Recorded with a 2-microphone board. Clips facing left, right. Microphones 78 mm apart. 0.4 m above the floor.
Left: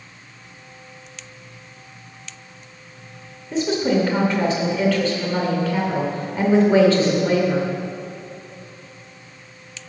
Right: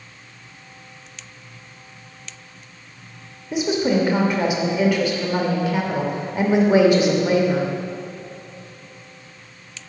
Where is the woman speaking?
15° right (ahead or behind), 0.9 m.